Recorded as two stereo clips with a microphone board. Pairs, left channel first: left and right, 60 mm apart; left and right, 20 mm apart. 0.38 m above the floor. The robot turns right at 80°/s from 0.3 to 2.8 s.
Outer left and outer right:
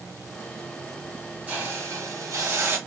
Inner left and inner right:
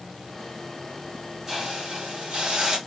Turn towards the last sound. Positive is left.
turn(degrees=-45)